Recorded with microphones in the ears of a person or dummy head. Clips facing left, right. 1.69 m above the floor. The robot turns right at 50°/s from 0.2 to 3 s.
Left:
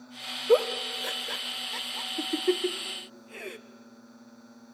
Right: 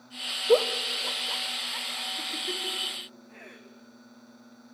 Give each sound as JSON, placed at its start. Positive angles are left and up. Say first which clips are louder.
{"t": 0.5, "sound": "a giggle", "louder": "even", "side_deg": 0, "distance_m": 0.9}